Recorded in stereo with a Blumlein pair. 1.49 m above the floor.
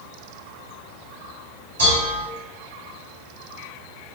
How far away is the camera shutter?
No camera shutter in this recording.